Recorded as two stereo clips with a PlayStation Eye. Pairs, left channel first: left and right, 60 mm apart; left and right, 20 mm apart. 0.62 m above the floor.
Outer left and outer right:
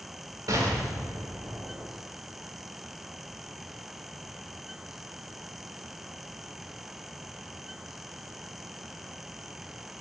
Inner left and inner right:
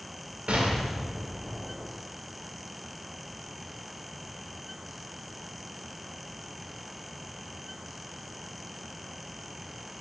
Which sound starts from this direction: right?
An explosion, at 0.5 s.